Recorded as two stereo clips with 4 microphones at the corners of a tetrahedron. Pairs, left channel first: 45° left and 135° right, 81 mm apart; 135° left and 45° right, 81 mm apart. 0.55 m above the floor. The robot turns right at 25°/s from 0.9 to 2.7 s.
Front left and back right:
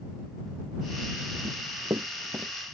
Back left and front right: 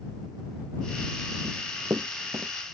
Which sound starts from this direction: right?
Running footsteps, at 1.4 s.